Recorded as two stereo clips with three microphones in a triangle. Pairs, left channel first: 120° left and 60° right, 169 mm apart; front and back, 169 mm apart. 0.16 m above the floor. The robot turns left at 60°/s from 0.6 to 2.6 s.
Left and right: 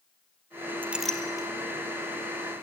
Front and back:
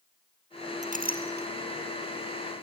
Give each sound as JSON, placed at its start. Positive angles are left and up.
{"t": 0.8, "sound": "a clink", "azimuth_deg": -135, "distance_m": 3.0}